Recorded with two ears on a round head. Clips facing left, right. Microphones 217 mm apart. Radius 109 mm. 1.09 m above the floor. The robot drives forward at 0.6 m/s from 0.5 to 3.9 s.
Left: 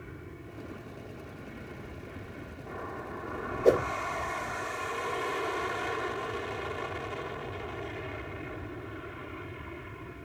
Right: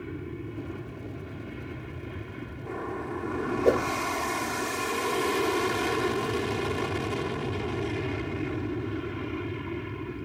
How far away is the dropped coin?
No dropped coin in this recording.